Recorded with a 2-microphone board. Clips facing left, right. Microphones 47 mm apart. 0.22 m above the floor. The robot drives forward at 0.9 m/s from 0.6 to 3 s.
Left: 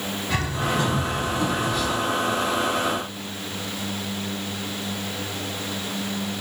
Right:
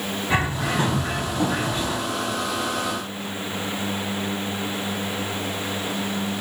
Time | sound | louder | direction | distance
0.3 | a bird | right 2 dB | 25° right (ahead or behind) | 1.1 m